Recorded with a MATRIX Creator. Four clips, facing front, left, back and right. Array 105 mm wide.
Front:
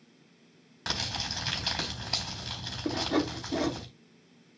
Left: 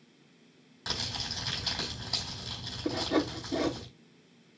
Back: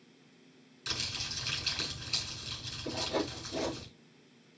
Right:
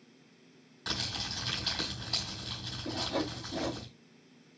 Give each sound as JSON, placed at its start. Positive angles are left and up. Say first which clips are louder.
{"t": 0.9, "sound": "crumpling", "louder": "even, front 7 dB", "azimuth_deg": 5, "distance_m": 4.0}
{"t": 2.9, "sound": "sawing", "louder": "left 5 dB, front 5 dB", "azimuth_deg": 45, "distance_m": 3.5}